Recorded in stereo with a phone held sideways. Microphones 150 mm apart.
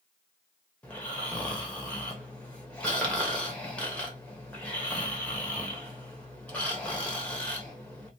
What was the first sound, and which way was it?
Snoring, 10° left (ahead or behind).